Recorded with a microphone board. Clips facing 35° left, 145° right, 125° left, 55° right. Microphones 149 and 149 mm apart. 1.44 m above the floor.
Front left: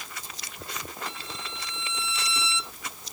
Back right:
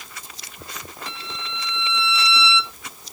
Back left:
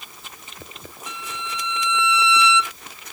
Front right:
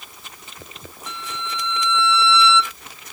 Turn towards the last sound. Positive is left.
turn(degrees=-160)